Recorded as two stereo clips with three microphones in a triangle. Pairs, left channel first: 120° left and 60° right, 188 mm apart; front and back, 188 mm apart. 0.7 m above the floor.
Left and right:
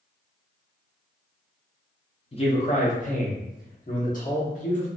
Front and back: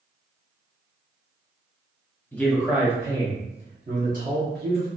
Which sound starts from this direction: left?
A man speaking, at 2.3 s.